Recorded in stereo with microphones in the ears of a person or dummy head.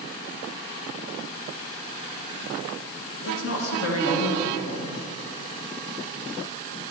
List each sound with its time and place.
3.2 s a woman speaking: 85° left, 2 m